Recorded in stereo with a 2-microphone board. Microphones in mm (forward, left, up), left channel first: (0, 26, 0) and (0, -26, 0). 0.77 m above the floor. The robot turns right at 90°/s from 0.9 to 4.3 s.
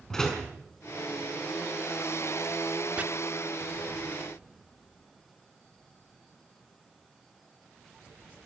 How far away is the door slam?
About 5.5 m.